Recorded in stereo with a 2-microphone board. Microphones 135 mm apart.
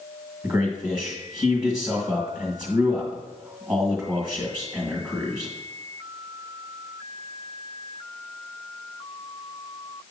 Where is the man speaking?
25° right (ahead or behind), 1.8 m.